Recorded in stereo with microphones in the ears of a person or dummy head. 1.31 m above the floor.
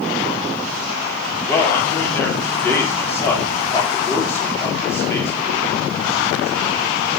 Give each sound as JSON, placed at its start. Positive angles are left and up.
{"t": 1.5, "sound": "a man speaking", "side_deg": 10, "distance_m": 4.5}